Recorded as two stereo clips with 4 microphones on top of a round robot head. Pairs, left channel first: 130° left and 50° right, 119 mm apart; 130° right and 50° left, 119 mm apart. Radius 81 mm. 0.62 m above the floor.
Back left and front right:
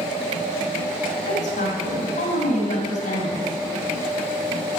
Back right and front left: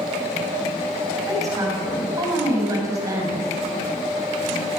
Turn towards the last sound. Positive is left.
turn(degrees=115)